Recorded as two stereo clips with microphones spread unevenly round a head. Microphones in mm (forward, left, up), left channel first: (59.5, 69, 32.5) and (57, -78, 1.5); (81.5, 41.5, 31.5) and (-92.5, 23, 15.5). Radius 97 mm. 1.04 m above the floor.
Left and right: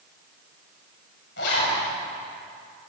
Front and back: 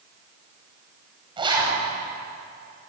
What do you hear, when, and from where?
1.4 s a zipper: 120° left, 7 m